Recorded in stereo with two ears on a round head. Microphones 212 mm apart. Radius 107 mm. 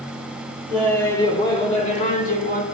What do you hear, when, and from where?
0.7 s laughter: 5° left (ahead or behind), 1.8 m; by 2.6 s 40° left (ahead or behind), 2.5 m